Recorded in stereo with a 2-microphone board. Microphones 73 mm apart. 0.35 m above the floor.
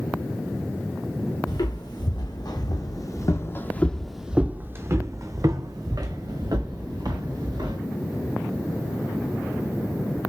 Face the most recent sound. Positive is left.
turn(degrees=-70)  # may be behind; listen again after turning